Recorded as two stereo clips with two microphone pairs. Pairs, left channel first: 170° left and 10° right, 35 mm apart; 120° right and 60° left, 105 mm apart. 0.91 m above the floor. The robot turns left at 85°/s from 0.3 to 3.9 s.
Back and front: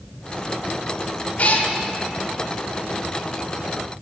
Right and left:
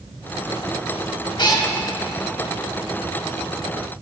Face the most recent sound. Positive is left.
turn(degrees=-10)